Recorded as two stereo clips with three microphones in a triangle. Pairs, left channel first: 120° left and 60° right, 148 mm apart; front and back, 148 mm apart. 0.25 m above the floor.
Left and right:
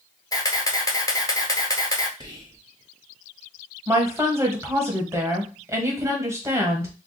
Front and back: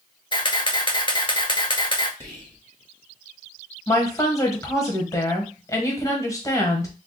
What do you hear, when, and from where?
0.3 s a camera shutter: 55° left, 0.6 m
2.2 s whispering: 45° right, 1.1 m
3.9 s a woman speaking: 25° right, 1.0 m